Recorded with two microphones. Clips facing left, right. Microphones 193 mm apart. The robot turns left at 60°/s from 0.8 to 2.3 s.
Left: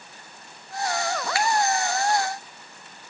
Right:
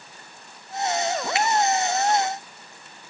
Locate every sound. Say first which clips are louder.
1.4 s a finger snap: right 1 dB; 20° right (ahead or behind), 0.6 m; by 1.5 s 25° right (ahead or behind), 0.6 m